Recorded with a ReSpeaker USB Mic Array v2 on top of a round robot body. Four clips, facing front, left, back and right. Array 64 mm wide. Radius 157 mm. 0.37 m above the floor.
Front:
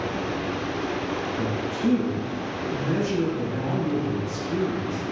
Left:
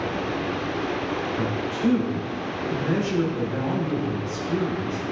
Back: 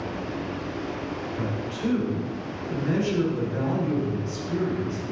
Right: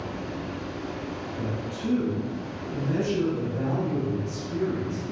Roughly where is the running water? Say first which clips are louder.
Left 7 dB, front 3 dB; ahead left.